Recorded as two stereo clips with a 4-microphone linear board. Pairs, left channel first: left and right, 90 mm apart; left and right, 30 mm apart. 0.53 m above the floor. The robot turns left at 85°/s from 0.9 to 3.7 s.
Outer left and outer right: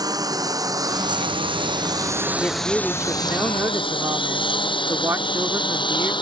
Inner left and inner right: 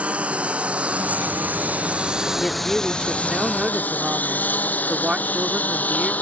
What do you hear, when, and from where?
0.0 s a lawn mower: 50° right (ahead or behind); by 6.2 s 70° left (ahead or behind)
2.4 s a woman speaking: 30° left; by 6.1 s 80° right